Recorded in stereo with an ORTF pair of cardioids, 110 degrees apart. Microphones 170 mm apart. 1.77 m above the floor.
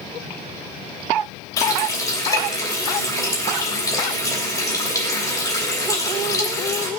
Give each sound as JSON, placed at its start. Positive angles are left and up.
{"t": 1.6, "sound": "a running tap", "azimuth_deg": 20, "distance_m": 3.0}